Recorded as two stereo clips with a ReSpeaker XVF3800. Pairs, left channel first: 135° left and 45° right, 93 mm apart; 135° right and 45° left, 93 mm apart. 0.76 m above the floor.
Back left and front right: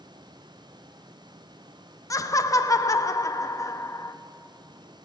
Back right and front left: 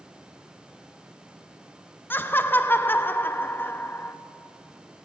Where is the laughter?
170° left, 0.6 m.